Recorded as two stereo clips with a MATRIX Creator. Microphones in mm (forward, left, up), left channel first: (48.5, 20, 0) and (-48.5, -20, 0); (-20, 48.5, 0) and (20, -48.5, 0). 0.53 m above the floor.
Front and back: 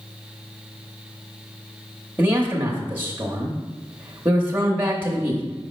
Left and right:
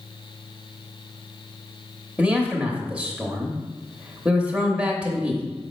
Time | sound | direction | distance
2.2 | a man speaking | 130° right | 0.9 m